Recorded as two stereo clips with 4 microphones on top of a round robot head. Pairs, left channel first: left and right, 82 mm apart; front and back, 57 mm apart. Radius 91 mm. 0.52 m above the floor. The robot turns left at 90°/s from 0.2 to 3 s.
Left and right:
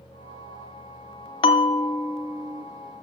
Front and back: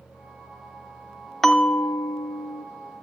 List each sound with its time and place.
1.4 s a bell: 85° left, 0.7 m; by 2.6 s 25° right, 0.7 m